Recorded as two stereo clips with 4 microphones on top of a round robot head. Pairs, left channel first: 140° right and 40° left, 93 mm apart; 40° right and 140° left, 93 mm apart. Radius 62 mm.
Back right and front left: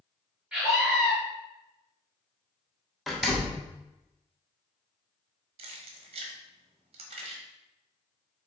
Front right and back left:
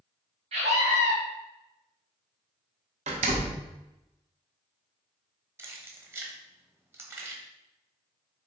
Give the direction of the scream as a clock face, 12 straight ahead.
8 o'clock.